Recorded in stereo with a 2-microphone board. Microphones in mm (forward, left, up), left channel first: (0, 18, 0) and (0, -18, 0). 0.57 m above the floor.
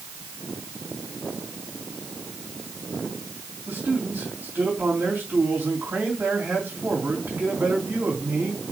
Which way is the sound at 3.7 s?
75° right (ahead or behind).